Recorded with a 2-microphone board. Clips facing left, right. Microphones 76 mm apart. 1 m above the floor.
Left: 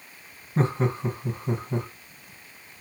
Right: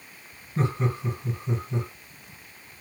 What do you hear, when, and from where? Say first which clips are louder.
0.6 s laughter: left 3 dB; 40° left (ahead or behind), 1.0 m